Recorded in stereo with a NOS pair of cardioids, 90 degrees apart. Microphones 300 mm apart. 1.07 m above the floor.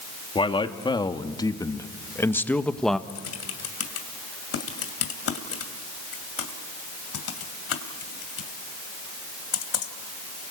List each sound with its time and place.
0.3 s a man speaking: 20° left, 2.5 m; by 3.0 s straight ahead, 1.3 m
3.1 s typing on a keyboard: 55° left, 2.5 m